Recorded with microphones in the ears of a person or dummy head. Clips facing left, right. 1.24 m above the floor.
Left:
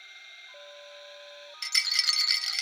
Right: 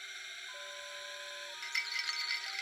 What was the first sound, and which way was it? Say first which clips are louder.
A drone: right 2 dB; 30° right (ahead or behind).